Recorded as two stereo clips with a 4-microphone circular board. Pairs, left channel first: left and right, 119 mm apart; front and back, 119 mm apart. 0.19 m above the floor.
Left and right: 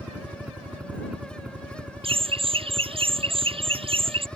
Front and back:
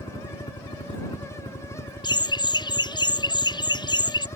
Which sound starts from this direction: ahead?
A helicopter, at 0.0 s.